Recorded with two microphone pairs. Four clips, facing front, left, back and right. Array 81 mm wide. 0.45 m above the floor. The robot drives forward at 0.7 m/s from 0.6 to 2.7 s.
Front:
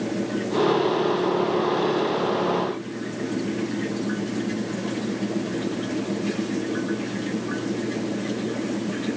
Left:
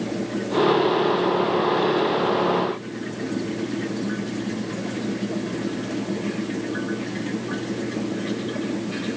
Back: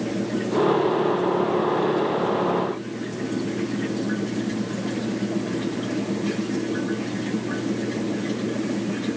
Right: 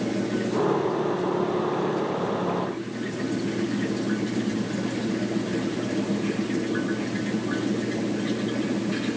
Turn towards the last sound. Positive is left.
No sound to turn to.